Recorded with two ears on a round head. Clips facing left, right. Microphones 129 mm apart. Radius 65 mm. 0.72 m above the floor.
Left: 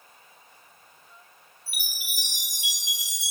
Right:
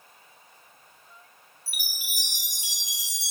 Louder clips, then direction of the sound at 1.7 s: Even; 30° right (ahead or behind).